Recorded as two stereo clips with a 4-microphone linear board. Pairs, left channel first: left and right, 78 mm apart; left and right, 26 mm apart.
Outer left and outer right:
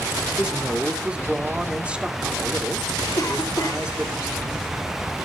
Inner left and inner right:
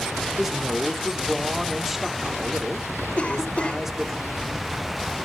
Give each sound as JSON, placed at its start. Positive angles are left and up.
{"t": 0.4, "sound": "a man speaking", "side_deg": -15, "distance_m": 2.0}
{"t": 3.2, "sound": "a cough", "side_deg": 50, "distance_m": 3.5}